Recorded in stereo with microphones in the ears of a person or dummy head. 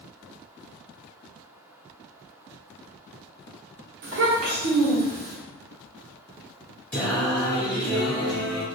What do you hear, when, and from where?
4.0 s a child speaking: 45° right (ahead or behind), 0.8 m; by 5.4 s 40° right (ahead or behind), 1.3 m
6.9 s singing: 15° left (ahead or behind), 0.9 m